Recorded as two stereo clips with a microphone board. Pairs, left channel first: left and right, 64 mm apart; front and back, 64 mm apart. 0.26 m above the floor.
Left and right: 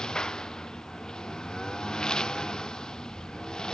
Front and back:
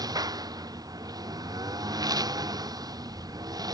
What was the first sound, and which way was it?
A lawn mower, 170° left.